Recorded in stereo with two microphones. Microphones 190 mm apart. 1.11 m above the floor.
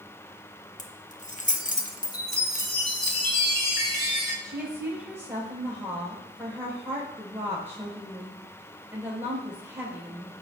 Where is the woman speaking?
15° right (ahead or behind), 4 m.